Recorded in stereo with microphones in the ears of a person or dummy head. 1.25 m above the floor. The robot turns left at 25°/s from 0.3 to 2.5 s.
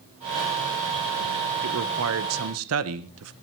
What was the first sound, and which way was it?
A man speaking, 75° right (ahead or behind).